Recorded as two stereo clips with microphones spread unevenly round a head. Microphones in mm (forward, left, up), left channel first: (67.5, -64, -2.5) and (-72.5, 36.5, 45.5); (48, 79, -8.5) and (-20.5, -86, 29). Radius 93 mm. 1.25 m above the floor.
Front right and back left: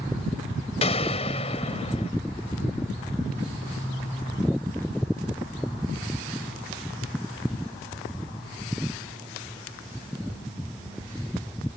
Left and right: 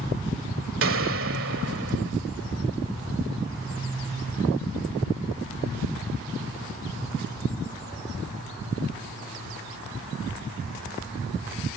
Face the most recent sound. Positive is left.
turn(degrees=-100)